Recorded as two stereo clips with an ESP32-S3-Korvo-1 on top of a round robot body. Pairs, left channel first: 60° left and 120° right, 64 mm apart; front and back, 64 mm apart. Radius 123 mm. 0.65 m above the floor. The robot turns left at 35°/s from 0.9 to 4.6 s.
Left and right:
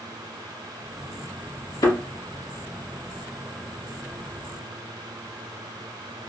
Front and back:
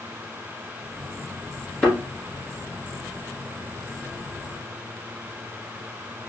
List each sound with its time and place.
1.8 s a thud: 80° left, 1.5 m; by 2.0 s 75° left, 1.5 m